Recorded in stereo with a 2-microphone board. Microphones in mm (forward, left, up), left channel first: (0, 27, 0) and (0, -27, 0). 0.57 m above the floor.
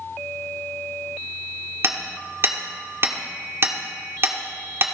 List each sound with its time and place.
1.8 s hammering: 50° right (ahead or behind), 1.5 m